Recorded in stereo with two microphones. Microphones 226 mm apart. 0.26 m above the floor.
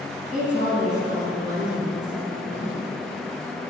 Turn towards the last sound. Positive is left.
turn(degrees=35)  # may be behind; listen again after turning